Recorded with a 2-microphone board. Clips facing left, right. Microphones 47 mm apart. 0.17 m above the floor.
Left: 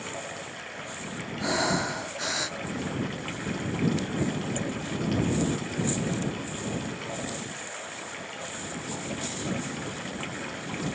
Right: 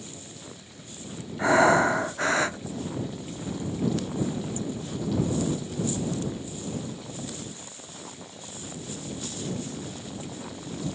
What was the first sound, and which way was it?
Running water, 55° left (ahead or behind).